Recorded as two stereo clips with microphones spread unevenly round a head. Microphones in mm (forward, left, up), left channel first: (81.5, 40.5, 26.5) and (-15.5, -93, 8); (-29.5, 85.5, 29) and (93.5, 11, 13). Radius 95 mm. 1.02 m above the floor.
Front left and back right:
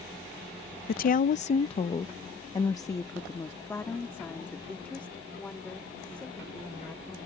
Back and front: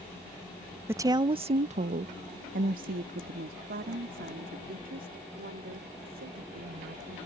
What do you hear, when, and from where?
0.9 s a woman speaking: 35° left; by 7.2 s 30° right